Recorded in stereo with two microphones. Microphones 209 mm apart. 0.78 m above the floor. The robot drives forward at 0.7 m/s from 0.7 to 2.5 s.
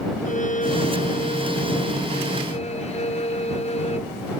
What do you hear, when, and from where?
0.2 s a violin: 35° left (ahead or behind); by 4.1 s 30° left (ahead or behind)